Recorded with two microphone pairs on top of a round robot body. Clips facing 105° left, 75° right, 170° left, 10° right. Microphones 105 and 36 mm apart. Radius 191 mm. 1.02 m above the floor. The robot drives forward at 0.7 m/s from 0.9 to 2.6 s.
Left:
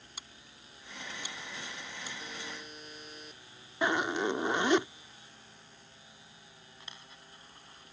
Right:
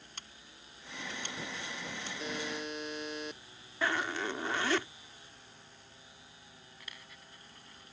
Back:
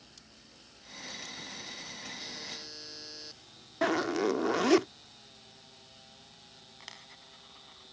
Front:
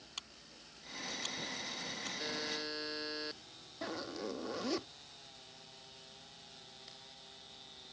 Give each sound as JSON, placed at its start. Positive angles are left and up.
{"t": 0.2, "sound": "scissors", "azimuth_deg": 20}
{"t": 2.2, "sound": "a buzzer", "azimuth_deg": -70}
{"t": 3.8, "sound": "a zipper", "azimuth_deg": 175}
{"t": 6.8, "sound": "a dropped coin", "azimuth_deg": 170}